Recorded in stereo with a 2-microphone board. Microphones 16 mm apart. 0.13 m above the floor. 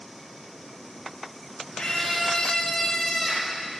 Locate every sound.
1.8 s a scream: 50° left (ahead or behind), 2.5 m